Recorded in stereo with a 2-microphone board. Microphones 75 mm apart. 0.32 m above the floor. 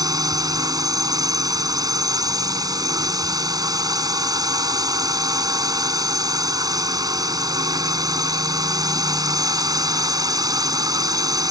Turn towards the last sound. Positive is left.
turn(degrees=-60)  # may be behind; listen again after turning